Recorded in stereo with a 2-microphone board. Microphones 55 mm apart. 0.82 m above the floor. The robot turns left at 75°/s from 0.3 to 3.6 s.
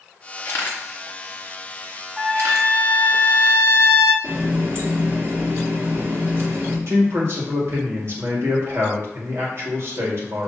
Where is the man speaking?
50° right (ahead or behind), 1.6 m.